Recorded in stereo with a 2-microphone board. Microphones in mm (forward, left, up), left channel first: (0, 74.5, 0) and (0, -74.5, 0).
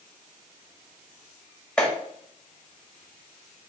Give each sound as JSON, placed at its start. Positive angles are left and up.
{"t": 1.8, "sound": "a clap", "side_deg": 5, "distance_m": 2.0}